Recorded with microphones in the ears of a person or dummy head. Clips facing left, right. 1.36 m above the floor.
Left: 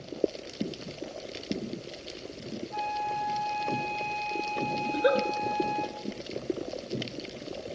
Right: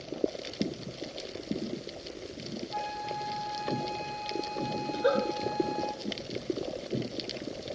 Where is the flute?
30° right (ahead or behind), 4 m.